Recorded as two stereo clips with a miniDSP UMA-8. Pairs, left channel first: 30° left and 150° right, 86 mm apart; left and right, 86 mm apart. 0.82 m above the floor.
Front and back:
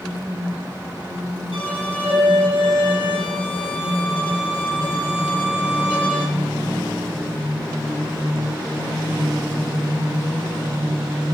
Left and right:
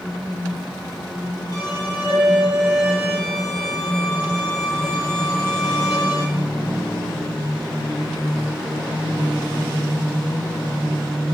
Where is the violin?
45° left, 8 m.